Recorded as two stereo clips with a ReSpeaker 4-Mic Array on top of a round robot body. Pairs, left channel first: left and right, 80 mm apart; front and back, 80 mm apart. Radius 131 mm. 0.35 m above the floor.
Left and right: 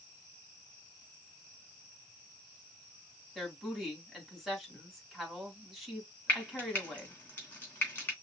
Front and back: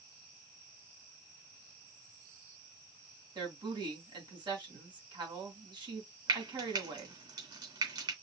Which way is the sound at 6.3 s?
155° left.